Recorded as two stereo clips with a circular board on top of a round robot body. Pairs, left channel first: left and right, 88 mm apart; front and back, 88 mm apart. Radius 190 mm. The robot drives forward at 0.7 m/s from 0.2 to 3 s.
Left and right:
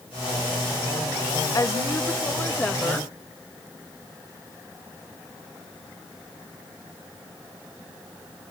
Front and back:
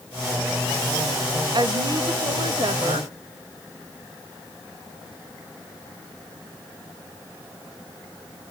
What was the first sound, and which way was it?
A woman speaking, 145° left.